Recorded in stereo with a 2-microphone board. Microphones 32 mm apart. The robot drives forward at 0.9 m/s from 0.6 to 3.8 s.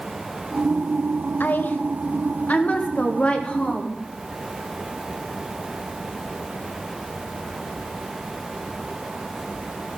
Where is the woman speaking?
75° left (ahead or behind), 1.5 m; by 4.0 s 35° left (ahead or behind), 2.5 m.